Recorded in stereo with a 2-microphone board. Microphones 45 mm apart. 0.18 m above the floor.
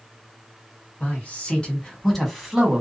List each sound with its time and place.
1.0 s a man speaking: 30° left (ahead or behind), 1.4 m; by 2.8 s 10° right (ahead or behind), 1.0 m